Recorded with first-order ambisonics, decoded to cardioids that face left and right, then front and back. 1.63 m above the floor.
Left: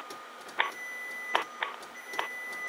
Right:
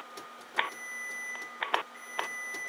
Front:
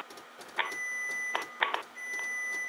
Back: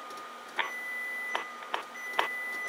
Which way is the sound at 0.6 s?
175° right.